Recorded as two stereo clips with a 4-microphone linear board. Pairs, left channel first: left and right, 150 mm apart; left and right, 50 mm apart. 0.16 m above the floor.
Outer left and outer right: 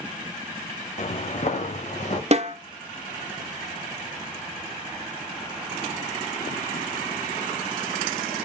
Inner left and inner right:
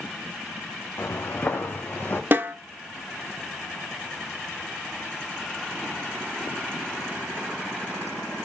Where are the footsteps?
50° left (ahead or behind), 0.8 m.